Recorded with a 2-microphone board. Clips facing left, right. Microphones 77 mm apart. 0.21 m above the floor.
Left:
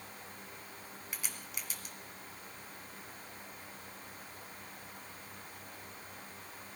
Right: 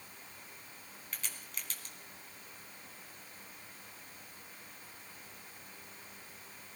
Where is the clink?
No clink in this recording.